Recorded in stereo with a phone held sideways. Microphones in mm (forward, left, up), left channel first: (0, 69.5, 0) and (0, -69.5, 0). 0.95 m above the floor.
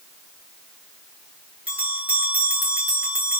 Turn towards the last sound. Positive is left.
turn(degrees=-10)  # may be behind; listen again after turning